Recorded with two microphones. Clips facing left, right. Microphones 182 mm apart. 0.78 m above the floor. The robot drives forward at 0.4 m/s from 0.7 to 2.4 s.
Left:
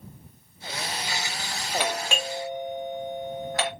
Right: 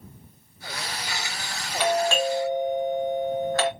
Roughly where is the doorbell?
Centre.